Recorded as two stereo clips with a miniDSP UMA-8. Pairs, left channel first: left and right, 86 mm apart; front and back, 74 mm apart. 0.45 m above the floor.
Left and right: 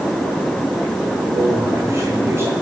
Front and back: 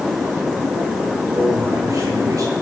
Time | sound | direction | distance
1.3 | a man speaking | 140° right | 7 m